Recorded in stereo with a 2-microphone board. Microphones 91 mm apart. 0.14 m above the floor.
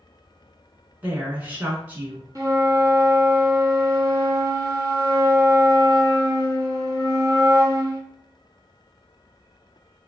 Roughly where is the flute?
Right.